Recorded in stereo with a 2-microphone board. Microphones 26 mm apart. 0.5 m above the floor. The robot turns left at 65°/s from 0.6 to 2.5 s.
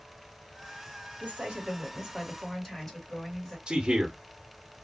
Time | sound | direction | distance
1.2 | a woman speaking | 115° right | 1.8 m
3.7 | a man speaking | 25° right (ahead or behind) | 1.1 m